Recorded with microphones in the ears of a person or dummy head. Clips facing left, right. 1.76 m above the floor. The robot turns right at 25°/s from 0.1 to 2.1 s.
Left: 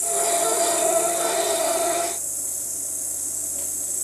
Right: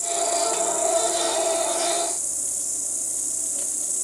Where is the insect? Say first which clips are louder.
Left 1 dB; 15° left (ahead or behind), 1.3 m; by 4.0 s centre (ahead or behind), 1.3 m.